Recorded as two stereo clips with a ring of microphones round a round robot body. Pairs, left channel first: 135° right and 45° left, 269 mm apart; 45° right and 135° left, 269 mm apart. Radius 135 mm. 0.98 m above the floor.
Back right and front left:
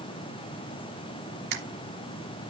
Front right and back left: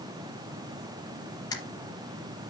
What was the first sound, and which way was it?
A camera shutter, 30° left.